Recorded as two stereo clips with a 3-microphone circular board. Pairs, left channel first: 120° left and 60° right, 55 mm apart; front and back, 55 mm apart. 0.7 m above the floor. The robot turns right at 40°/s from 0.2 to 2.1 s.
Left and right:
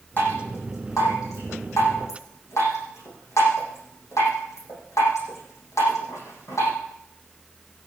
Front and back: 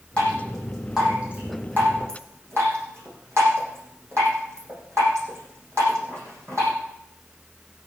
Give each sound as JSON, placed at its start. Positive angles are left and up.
{"t": 0.2, "sound": "dripping", "azimuth_deg": 70, "distance_m": 10.0}